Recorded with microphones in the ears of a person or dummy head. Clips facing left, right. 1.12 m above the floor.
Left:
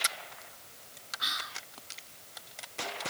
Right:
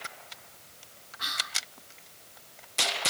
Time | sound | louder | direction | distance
1.2 | whispering | right 3 dB | 65° right (ahead or behind) | 2.0 m